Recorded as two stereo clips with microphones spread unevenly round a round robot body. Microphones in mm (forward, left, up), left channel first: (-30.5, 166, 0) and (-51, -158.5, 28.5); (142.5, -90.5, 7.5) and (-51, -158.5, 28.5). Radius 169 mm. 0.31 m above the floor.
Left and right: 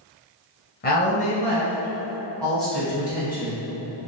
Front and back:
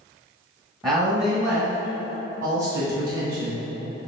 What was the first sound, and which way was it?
A woman speaking, 125° left.